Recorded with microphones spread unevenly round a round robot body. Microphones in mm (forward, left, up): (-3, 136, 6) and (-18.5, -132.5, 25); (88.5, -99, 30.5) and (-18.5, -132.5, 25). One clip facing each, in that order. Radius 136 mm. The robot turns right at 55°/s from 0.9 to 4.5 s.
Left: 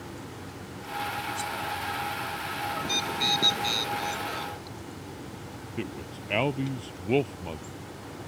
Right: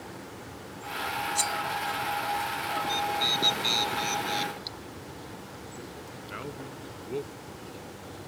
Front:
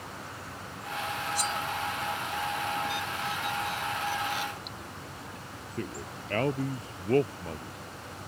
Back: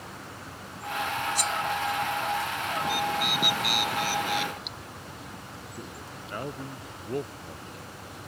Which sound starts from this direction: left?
A man speaking, at 5.8 s.